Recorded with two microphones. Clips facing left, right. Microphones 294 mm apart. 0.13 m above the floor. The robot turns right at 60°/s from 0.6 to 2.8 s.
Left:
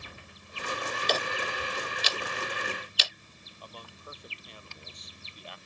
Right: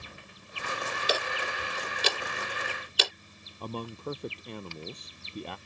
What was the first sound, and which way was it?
Ticking, 10° right (ahead or behind).